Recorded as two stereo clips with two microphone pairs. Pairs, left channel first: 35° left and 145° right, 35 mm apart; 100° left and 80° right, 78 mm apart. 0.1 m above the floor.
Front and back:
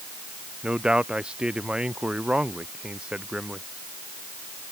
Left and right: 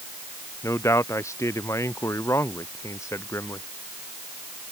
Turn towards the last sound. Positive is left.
turn(degrees=150)